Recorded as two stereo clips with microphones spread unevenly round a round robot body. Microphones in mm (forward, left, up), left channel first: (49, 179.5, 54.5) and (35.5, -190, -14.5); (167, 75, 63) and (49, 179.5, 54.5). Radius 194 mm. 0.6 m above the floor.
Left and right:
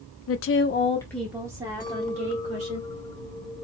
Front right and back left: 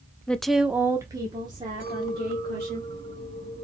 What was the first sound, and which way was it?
A woman speaking, 45° left.